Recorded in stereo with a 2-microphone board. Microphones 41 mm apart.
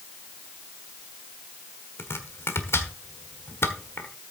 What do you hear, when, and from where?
2.0 s chopping: 75° left (ahead or behind), 1.4 m